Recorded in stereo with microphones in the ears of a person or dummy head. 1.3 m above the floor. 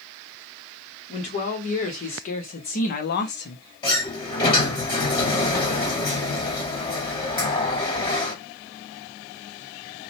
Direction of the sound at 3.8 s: 20° left (ahead or behind).